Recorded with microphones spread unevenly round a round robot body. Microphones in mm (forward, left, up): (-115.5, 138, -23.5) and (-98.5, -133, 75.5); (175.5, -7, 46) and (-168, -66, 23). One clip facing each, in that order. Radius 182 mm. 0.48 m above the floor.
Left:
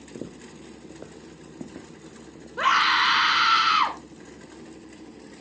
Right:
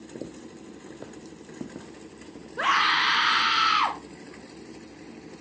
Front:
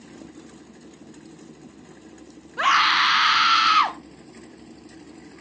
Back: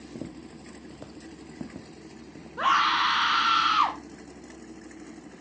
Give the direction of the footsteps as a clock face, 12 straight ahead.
6 o'clock.